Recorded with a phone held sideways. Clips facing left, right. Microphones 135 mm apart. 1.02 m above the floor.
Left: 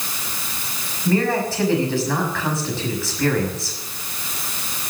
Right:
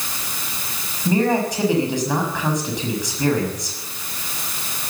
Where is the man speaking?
20° right (ahead or behind), 6.5 m.